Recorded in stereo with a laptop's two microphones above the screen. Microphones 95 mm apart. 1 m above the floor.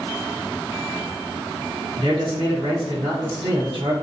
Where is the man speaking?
70° right (ahead or behind), 1.9 m.